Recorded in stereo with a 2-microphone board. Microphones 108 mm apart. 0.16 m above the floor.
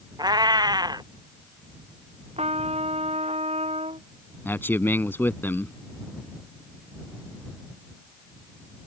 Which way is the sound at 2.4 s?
70° right (ahead or behind).